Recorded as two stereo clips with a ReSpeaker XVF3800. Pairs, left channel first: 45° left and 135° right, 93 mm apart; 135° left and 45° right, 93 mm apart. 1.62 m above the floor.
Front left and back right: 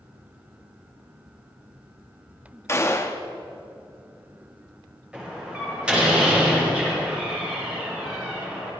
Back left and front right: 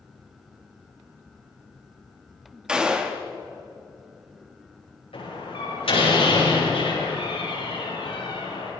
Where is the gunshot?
30° left, 1.1 m.